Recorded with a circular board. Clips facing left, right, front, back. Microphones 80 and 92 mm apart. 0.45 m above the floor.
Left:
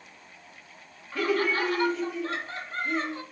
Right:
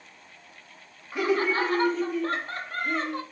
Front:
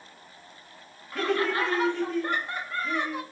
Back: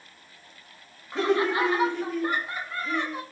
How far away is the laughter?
About 0.9 m.